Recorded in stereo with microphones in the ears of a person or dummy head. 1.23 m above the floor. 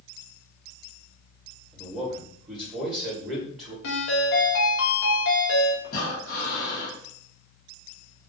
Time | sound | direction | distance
1.7 | a man speaking | 10° right (ahead or behind) | 1.1 m
3.8 | a ringtone | 65° left (ahead or behind) | 0.9 m
5.8 | breathing | 55° left (ahead or behind) | 1.0 m